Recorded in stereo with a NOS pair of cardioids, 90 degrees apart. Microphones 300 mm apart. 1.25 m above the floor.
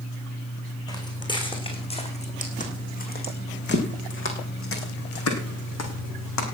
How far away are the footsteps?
About 5.5 m.